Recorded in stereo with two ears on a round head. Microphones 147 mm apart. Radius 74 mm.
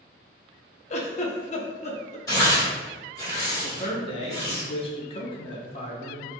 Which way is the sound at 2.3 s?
20° left (ahead or behind).